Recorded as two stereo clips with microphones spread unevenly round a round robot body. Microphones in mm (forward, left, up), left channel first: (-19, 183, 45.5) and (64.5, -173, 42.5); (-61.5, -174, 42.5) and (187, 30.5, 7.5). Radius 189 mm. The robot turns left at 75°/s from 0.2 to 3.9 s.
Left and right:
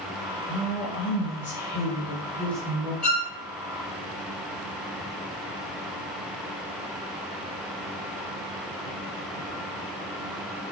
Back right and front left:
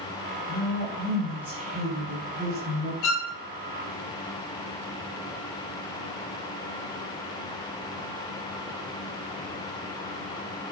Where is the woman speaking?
170° left, 1.7 m; by 2.9 s 10° right, 1.7 m.